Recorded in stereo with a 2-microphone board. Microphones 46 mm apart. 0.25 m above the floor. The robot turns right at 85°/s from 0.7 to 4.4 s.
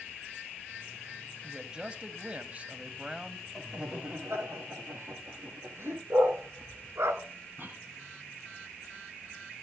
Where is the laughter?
5° left (ahead or behind), 7.5 m; by 6.0 s 65° right (ahead or behind), 7.5 m.